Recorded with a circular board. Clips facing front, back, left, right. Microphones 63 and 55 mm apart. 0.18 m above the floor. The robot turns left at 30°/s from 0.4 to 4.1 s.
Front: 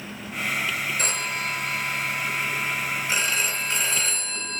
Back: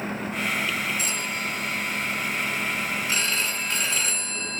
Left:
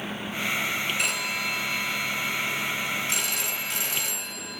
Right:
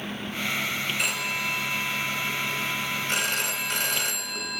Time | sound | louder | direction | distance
1.0 | a phone ringing | front 1 dB, even | 5° right | 1.1 m